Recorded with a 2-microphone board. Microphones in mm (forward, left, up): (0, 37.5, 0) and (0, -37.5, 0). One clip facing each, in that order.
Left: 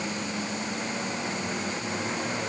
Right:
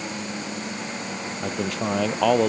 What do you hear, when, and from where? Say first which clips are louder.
1.4 s a man speaking: right 5 dB; 85° right